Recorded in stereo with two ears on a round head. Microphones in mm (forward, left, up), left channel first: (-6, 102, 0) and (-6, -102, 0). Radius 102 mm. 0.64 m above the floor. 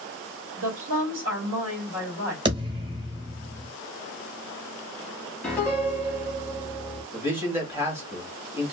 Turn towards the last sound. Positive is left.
turn(degrees=-10)  # may be behind; listen again after turning